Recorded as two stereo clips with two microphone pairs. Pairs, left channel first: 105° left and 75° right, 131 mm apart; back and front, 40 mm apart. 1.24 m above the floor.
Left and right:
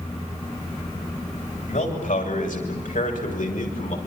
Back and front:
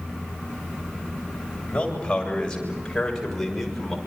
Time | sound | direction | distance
1.7 | a man speaking | 115° left | 8 m